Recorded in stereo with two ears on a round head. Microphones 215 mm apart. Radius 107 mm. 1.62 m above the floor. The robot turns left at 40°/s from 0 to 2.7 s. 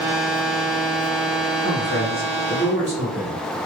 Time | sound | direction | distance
1.6 | a man speaking | 130° right | 1.4 m